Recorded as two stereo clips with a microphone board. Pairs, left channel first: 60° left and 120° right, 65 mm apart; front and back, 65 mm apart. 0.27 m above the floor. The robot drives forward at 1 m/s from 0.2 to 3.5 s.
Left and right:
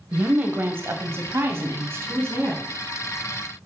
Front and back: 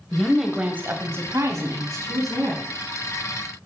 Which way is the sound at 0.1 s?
75° right.